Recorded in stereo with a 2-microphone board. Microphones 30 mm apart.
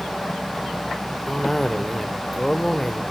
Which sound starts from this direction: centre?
A cough, at 1.3 s.